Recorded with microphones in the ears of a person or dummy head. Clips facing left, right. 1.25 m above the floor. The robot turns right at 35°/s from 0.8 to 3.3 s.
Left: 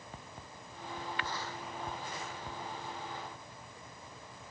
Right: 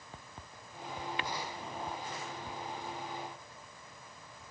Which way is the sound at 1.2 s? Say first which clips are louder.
Right 2 dB; 20° right (ahead or behind).